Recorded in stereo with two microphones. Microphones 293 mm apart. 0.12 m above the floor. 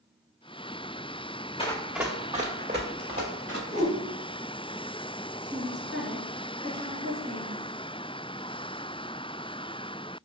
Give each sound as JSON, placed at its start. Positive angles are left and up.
{"t": 1.6, "sound": "running footsteps", "side_deg": 20, "distance_m": 0.8}
{"t": 3.7, "sound": "a whoosh", "side_deg": 45, "distance_m": 0.9}
{"t": 5.4, "sound": "a woman speaking", "side_deg": -40, "distance_m": 1.8}